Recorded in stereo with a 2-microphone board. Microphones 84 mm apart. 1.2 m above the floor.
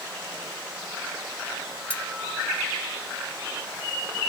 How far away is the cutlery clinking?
About 1.5 m.